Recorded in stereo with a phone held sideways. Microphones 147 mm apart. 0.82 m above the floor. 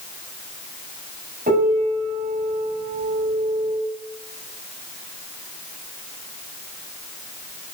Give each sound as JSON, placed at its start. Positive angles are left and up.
{"t": 1.5, "sound": "a piano", "side_deg": -85, "distance_m": 5.0}